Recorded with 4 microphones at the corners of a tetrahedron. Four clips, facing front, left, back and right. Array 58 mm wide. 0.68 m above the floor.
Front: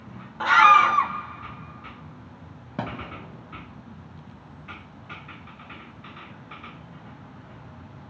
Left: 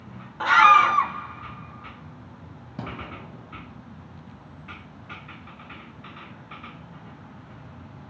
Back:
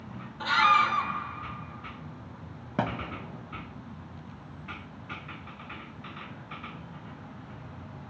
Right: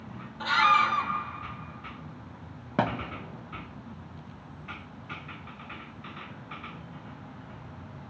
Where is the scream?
45° left, 0.8 m.